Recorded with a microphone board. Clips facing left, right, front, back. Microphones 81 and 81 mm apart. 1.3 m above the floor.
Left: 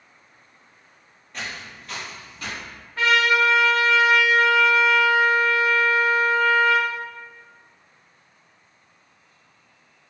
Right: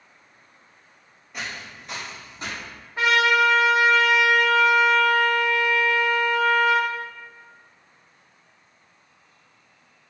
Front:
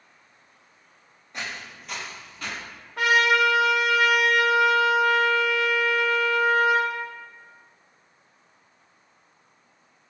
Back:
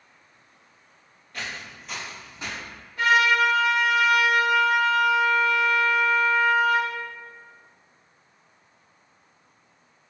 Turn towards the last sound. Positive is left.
turn(degrees=-20)